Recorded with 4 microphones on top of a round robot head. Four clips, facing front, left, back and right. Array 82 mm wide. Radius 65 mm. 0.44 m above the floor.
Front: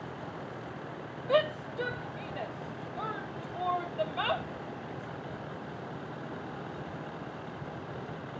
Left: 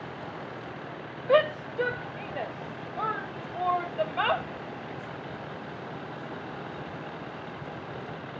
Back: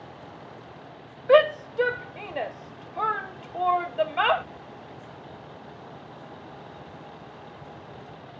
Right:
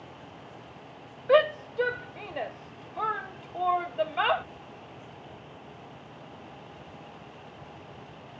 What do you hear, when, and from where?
0.0 s a vehicle: 60° left
1.3 s a shout: straight behind